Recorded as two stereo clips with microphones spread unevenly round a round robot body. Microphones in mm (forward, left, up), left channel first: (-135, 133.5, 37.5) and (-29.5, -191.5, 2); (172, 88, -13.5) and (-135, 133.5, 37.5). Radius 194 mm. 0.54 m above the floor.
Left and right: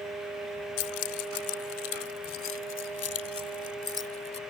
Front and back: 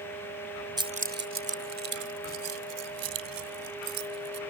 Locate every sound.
0.8 s keys jangling: 90° left; by 4.4 s 165° left